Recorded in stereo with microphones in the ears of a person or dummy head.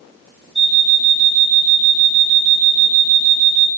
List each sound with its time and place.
0.6 s an alarm clock: 5° left (ahead or behind), 0.6 m